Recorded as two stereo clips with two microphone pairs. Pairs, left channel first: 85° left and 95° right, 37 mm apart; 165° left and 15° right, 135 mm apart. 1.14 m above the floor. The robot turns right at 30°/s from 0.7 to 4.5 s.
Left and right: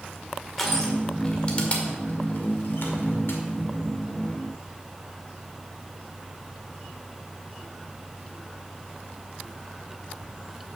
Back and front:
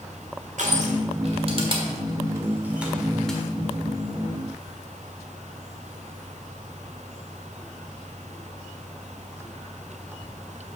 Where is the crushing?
5° left, 1.6 m; by 3.4 s 85° left, 1.6 m.